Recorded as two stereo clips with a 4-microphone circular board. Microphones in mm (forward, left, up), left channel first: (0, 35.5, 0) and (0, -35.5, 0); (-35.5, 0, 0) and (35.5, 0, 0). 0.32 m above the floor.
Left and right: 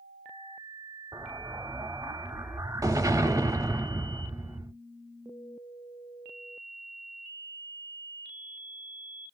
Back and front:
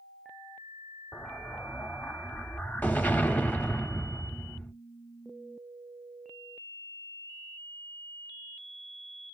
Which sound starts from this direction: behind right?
An explosion, at 1.1 s.